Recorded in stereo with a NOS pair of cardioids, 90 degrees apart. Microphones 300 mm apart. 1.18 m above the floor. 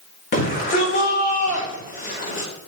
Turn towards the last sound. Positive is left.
turn(degrees=40)